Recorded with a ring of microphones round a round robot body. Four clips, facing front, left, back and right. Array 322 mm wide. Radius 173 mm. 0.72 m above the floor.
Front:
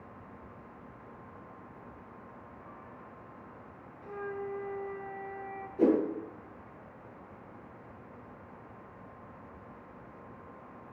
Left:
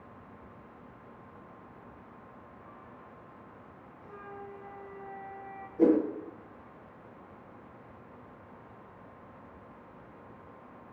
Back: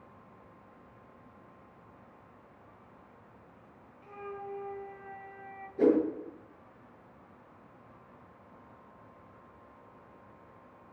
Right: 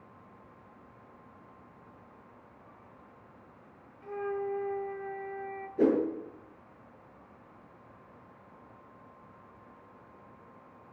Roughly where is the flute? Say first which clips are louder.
Right 12 dB, front 4 dB; right.